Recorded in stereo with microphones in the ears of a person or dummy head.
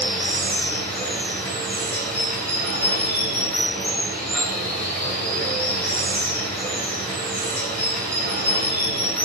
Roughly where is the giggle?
No giggle in this recording.